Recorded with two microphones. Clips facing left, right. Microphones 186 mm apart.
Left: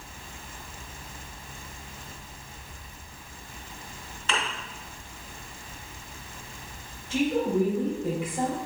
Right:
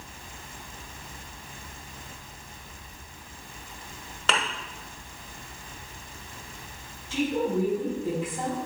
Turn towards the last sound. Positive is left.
turn(degrees=65)  # may be behind; listen again after turning